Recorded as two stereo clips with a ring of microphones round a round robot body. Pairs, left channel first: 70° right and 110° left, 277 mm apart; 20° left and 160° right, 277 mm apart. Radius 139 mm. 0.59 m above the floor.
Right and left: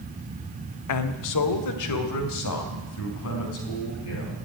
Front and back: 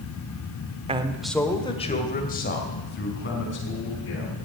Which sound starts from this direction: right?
A man speaking, at 0.9 s.